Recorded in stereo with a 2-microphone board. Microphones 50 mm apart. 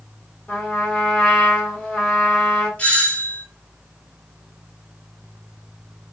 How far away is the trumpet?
About 1.7 m.